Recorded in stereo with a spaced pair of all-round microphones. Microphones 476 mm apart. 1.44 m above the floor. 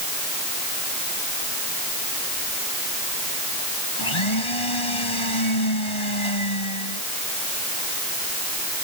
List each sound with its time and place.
4.0 s a blender: 85° left